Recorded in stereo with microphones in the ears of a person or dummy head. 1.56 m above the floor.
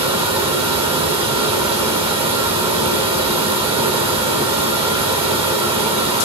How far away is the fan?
About 0.9 m.